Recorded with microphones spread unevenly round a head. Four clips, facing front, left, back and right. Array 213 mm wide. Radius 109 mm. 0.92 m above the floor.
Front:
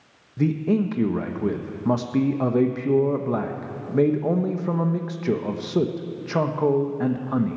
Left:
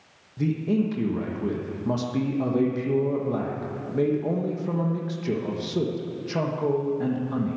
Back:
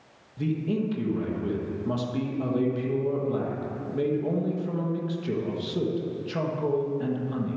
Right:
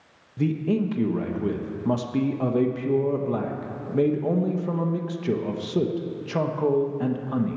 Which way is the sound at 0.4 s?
15° right.